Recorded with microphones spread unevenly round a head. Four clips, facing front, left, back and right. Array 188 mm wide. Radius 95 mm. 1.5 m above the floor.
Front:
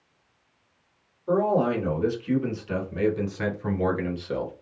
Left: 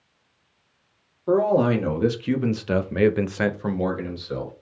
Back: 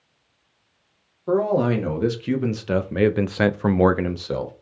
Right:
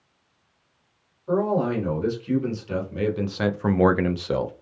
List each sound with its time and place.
1.3 s a man speaking: 130° left, 1.8 m; by 4.5 s 100° right, 0.7 m